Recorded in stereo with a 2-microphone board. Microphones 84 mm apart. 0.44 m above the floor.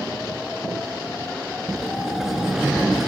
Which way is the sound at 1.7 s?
5° right (ahead or behind).